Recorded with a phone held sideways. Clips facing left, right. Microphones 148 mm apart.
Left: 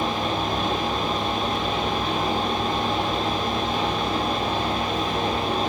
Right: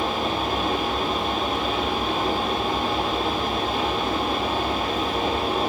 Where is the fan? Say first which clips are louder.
Even; 5° right (ahead or behind), 1.3 m.